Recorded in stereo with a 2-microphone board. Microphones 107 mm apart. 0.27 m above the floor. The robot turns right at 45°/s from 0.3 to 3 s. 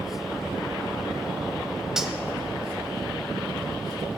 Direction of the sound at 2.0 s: 5° right (ahead or behind).